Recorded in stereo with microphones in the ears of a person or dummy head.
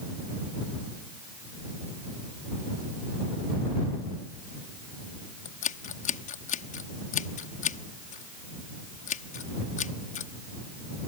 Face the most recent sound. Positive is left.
turn(degrees=40)  # may be behind; listen again after turning